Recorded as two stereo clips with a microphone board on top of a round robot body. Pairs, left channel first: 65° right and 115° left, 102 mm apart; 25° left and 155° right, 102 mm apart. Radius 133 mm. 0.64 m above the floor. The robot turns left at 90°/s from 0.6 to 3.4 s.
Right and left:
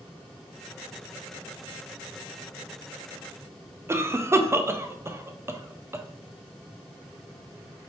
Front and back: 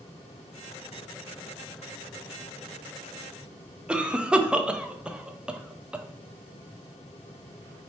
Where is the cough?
135° left, 0.5 m.